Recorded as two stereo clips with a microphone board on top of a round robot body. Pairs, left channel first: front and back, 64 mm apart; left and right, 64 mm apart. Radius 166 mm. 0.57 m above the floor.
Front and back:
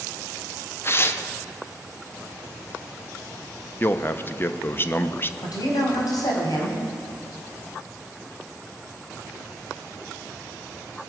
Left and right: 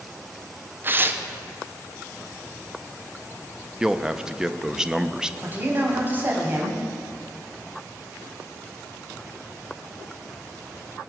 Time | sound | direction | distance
0.8 | tearing paper | 40° right | 1.1 m
3.8 | a man speaking | 20° right | 1.0 m
5.4 | a man speaking | 30° right | 4 m